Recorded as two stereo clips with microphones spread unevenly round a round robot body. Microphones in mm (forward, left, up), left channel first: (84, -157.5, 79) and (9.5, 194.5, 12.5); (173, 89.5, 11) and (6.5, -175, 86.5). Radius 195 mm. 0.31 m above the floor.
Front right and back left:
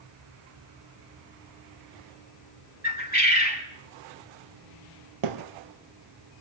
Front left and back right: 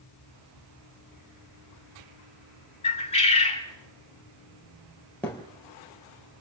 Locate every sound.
2.8 s a bird: 10° right, 3.5 m
5.2 s a thud: 145° left, 2.5 m